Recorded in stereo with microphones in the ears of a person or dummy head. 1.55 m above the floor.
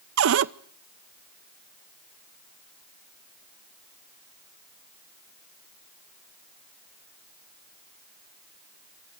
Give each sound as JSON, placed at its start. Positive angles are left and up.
{"t": 0.2, "sound": "a cupboard door", "side_deg": -70, "distance_m": 0.7}